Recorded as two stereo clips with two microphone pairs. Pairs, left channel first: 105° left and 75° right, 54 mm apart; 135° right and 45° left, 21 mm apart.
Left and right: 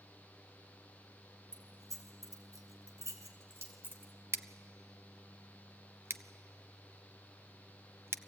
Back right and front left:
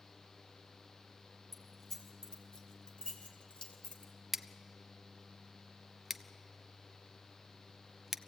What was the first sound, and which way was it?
Keys jangling, 55° right.